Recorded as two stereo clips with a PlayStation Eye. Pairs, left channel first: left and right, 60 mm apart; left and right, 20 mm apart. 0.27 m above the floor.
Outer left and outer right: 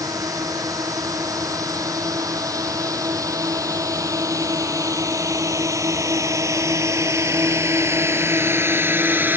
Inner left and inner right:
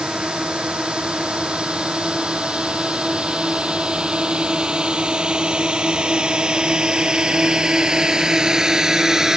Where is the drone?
75° right (ahead or behind); by 9.4 s 35° right (ahead or behind).